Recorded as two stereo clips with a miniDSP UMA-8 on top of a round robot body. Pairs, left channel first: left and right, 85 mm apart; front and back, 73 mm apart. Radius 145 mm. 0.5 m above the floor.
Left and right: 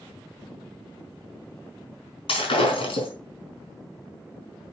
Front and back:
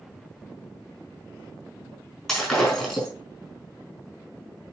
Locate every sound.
2.3 s breaking glass: 85° left, 3.5 m